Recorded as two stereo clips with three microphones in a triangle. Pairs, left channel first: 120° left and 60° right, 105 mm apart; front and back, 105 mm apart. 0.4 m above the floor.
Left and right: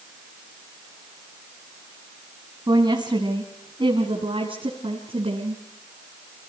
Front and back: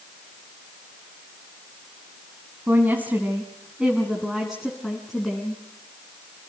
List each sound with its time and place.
2.7 s a woman speaking: 110° right, 3 m; by 5.6 s 85° right, 4.5 m